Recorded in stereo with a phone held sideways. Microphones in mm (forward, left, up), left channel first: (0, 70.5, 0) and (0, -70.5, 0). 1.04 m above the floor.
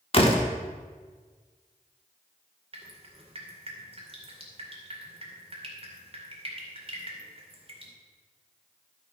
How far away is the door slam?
About 1.4 m.